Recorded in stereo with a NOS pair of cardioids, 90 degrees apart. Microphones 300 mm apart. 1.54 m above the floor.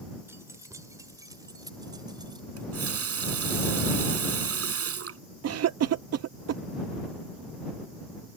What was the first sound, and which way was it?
Keys jangling, 10° right.